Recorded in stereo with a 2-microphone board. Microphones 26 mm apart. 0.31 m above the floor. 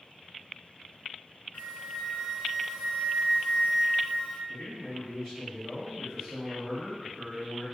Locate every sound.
1.5 s a flute: 75° left (ahead or behind), 1.2 m
4.5 s a man speaking: centre (ahead or behind), 1.7 m